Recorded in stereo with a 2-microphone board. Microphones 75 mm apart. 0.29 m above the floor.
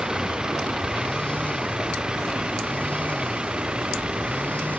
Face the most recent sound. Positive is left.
turn(degrees=-15)  # may be behind; listen again after turning